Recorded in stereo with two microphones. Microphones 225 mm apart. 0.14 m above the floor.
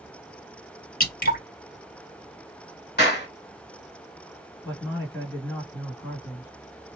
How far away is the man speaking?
About 1.8 m.